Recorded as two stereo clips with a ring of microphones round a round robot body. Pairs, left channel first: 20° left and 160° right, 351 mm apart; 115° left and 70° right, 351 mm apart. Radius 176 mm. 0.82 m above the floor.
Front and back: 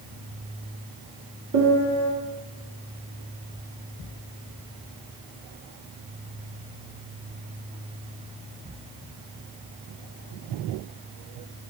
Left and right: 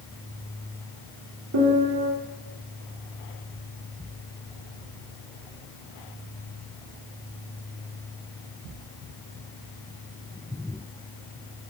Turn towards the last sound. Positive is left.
turn(degrees=-115)